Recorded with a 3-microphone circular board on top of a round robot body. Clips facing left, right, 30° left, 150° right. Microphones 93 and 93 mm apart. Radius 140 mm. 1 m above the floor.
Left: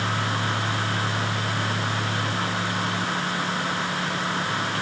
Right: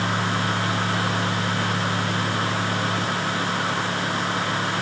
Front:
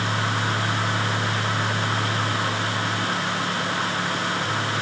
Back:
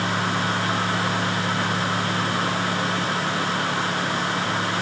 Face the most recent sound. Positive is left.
No sound to turn to.